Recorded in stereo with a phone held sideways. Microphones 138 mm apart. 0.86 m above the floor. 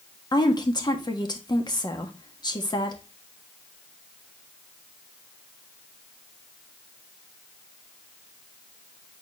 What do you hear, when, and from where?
0.3 s a woman speaking: 30° left (ahead or behind), 1.4 m